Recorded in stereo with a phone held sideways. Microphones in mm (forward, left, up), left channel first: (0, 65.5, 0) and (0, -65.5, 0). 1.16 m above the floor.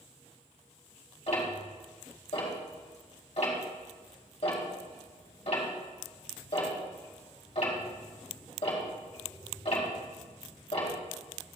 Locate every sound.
1.3 s ticking: 60° left (ahead or behind), 2.5 m